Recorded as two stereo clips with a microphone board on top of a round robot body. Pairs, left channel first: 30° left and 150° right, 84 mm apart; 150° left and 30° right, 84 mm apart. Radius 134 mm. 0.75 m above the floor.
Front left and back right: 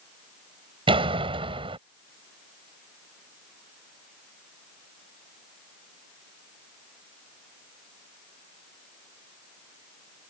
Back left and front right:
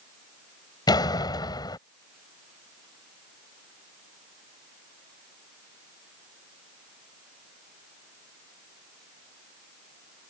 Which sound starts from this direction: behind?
A door slam, at 0.9 s.